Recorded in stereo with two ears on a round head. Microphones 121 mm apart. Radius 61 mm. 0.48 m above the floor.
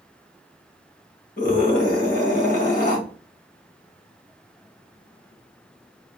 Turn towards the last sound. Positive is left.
turn(degrees=70)  # may be behind; listen again after turning